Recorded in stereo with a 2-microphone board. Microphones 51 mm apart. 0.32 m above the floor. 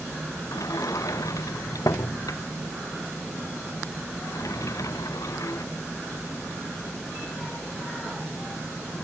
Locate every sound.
0.5 s a sliding door: 90° left